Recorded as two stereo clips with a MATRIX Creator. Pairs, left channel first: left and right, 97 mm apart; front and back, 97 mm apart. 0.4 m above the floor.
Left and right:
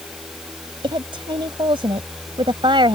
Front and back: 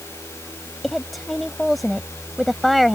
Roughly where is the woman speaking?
Right.